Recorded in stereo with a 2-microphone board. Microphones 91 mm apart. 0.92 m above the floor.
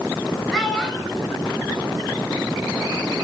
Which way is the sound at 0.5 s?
Centre (ahead or behind).